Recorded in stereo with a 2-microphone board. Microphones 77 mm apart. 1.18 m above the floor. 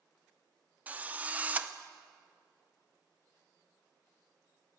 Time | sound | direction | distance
0.9 | a drill | 20° right (ahead or behind) | 1.0 m